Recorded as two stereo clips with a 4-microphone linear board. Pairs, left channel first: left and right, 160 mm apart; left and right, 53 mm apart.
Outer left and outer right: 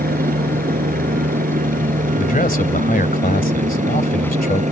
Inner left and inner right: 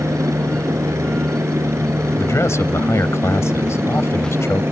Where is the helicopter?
65° right (ahead or behind); by 4.7 s 50° right (ahead or behind).